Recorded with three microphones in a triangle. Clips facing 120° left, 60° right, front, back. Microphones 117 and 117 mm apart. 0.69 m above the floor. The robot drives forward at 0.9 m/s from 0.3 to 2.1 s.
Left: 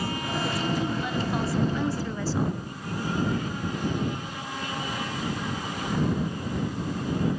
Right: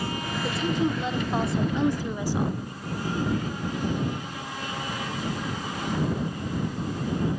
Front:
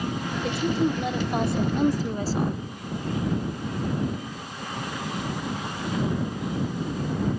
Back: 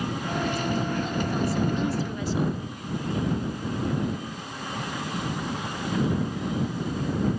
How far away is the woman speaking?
About 2 m.